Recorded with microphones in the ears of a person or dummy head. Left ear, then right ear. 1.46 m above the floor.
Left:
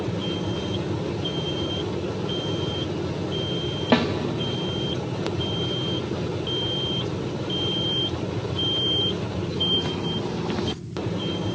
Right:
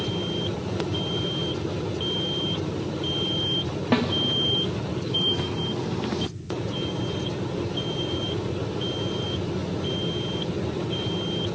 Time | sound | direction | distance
3.9 | a snare drum | 10° left (ahead or behind) | 0.9 m